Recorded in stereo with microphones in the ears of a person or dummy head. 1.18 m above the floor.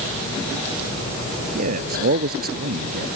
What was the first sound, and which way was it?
A man speaking, 45° right (ahead or behind).